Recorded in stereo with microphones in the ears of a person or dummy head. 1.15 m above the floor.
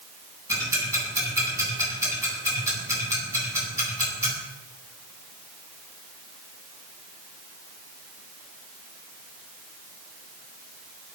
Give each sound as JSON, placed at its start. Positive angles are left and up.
{"t": 0.5, "sound": "ticking", "side_deg": -15, "distance_m": 9.0}